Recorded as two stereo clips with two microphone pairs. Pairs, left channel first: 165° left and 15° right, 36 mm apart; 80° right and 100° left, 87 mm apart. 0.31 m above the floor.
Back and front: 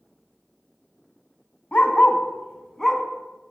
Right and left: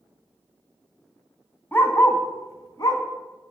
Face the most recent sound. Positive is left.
turn(degrees=-110)